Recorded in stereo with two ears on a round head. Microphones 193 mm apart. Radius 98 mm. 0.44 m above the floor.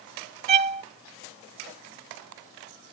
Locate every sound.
0.5 s a violin: 30° right (ahead or behind)